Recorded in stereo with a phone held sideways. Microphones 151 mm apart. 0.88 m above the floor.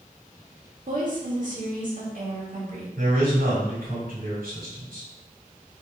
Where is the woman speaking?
65° right (ahead or behind), 1.7 m.